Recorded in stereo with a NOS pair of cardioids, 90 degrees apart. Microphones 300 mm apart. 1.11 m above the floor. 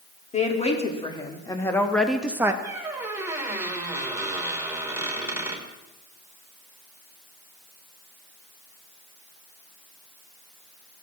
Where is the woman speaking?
20° left, 2.5 m; by 2.5 s 10° right, 1.1 m.